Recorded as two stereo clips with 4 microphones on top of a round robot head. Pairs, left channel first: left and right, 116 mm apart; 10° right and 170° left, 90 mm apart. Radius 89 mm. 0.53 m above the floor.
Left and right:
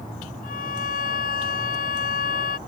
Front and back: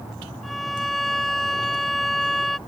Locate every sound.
0.4 s a violin: 80° left